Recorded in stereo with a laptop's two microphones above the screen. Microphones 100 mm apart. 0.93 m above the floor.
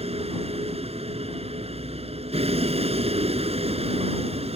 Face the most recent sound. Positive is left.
turn(degrees=-85)